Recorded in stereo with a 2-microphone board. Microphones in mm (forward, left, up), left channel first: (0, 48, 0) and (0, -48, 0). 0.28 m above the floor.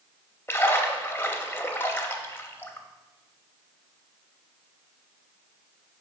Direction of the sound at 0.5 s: 25° left (ahead or behind).